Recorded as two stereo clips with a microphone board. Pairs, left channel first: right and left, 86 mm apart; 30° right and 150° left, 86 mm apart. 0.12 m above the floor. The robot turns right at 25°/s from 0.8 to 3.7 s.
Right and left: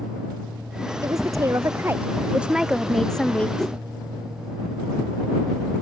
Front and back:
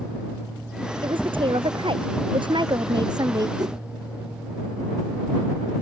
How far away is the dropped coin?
I don't hear a dropped coin.